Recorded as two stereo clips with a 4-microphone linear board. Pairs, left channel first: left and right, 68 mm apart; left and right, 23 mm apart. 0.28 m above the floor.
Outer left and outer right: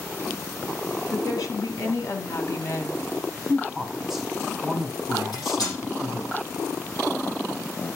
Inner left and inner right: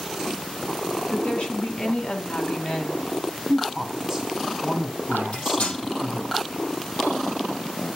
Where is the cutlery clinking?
70° left (ahead or behind), 6 m.